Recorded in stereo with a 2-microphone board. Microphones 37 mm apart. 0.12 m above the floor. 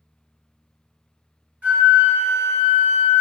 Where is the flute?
35° right (ahead or behind), 1.9 m.